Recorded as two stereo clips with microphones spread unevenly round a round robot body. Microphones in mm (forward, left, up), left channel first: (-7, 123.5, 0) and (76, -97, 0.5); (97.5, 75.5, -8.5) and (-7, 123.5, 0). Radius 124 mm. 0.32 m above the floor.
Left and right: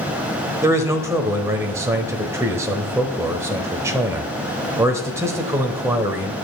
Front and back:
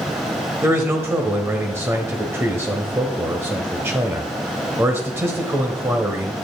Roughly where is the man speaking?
Behind right.